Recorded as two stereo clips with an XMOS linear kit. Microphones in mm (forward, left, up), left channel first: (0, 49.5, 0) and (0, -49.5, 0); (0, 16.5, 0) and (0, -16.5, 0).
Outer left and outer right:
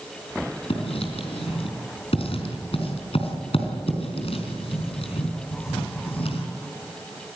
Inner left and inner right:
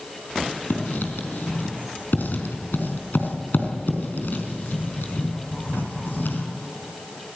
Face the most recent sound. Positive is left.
turn(degrees=75)  # may be behind; listen again after turning